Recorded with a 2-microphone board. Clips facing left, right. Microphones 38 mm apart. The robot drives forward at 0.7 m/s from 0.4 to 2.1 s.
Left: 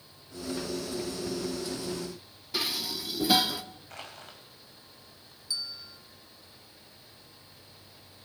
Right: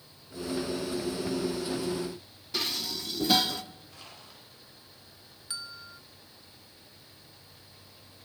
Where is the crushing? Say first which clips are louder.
Left 5 dB; 70° left (ahead or behind), 5 m.